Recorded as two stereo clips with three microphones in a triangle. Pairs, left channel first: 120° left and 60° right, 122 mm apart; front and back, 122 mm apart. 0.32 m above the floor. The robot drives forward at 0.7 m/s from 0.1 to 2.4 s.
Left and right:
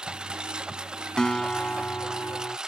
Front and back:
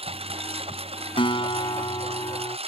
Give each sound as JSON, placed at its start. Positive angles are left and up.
{"t": 0.0, "sound": "a lawn mower", "azimuth_deg": -145}
{"t": 1.2, "sound": "a guitar", "azimuth_deg": 35}